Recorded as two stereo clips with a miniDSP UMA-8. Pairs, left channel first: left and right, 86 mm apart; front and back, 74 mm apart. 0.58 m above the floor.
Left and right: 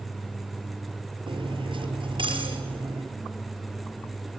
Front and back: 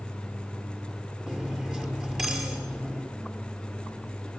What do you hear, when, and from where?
1.3 s cutlery clinking: 105° right, 6 m